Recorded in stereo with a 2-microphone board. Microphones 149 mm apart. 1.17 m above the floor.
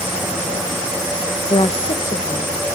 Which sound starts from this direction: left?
A woman speaking, at 1.5 s.